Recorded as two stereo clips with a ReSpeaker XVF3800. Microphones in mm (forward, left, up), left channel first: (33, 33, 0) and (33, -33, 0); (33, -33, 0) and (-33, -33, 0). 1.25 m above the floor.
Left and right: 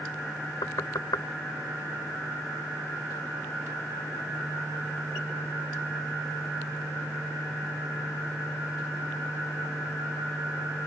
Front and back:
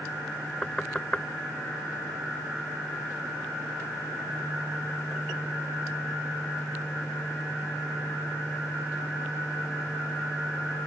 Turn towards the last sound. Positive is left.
turn(degrees=75)